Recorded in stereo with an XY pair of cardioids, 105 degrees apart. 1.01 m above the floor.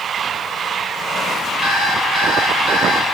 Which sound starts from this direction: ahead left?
An alarm clock, at 1.6 s.